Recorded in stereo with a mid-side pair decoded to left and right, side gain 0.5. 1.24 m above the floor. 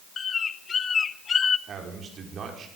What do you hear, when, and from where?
0.2 s a bird: 40° left, 0.6 m
1.7 s a man speaking: 50° right, 4.5 m